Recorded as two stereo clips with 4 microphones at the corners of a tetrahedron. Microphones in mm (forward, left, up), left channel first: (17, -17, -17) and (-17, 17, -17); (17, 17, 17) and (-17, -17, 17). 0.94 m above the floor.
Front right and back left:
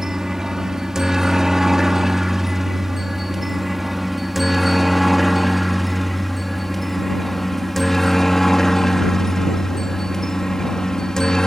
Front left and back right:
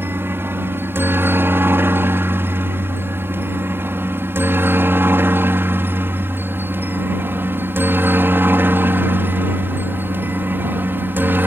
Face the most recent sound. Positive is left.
turn(degrees=-115)